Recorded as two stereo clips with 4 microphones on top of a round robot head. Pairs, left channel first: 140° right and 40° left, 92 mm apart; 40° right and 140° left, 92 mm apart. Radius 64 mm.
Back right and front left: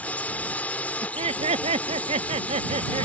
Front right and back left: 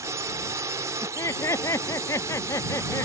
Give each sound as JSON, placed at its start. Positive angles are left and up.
{"t": 0.0, "sound": "a drone", "azimuth_deg": 160}
{"t": 1.0, "sound": "laughter", "azimuth_deg": 20}